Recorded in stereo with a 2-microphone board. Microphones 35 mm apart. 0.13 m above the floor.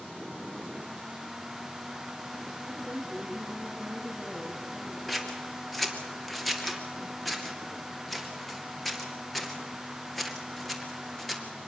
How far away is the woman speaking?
About 3.5 m.